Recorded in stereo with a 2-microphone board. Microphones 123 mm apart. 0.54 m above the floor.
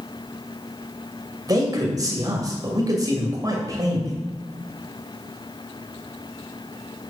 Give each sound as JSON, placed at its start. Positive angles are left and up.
{"t": 1.5, "sound": "a man speaking", "side_deg": -30, "distance_m": 2.5}